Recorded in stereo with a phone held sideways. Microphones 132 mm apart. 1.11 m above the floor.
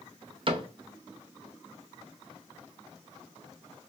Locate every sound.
0.5 s a cupboard door: 40° right (ahead or behind), 0.5 m